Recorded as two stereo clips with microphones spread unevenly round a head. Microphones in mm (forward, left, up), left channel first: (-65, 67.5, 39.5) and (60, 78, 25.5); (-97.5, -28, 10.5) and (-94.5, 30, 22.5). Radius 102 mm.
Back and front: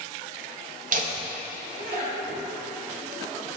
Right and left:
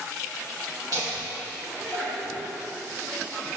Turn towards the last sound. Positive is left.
turn(degrees=-10)